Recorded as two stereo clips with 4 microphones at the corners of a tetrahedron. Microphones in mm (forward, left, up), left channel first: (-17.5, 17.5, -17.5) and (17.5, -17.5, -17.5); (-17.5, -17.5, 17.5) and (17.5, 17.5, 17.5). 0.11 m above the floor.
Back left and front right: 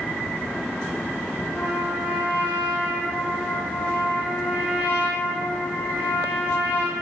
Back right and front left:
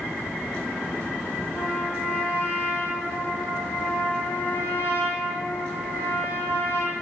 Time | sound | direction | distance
1.5 | a trumpet | 165° right | 6.5 m